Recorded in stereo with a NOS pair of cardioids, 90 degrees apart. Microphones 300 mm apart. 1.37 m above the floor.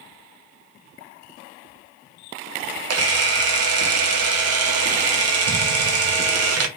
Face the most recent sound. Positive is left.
turn(degrees=-55)